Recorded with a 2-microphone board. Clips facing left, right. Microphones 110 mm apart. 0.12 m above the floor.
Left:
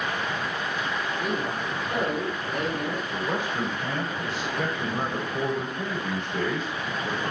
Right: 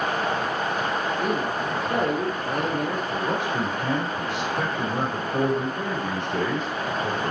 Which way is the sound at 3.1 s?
70° right (ahead or behind).